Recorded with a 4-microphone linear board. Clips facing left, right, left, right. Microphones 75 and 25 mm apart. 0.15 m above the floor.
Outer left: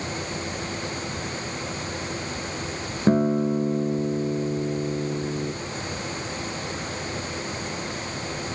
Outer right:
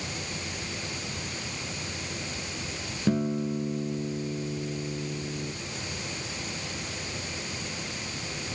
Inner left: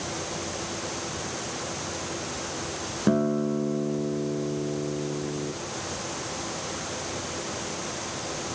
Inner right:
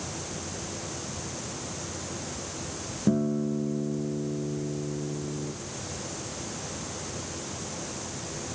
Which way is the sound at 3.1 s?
45° left (ahead or behind).